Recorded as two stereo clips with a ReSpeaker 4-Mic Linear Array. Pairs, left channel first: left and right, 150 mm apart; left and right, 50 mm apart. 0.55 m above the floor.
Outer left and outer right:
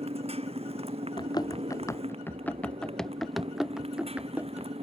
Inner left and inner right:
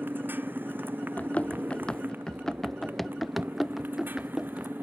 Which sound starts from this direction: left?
Running footsteps, at 1.2 s.